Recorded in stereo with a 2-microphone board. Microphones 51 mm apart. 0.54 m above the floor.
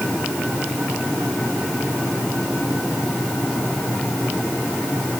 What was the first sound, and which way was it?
Only background noise.